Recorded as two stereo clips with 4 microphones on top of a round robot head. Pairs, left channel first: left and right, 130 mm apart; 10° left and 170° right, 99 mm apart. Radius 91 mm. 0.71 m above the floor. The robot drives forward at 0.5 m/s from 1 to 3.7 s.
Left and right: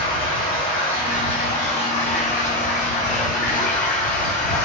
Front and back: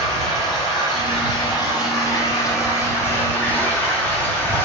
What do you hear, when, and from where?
0.0 s running water: 50° left, 2.5 m; by 4.6 s 80° left, 2.0 m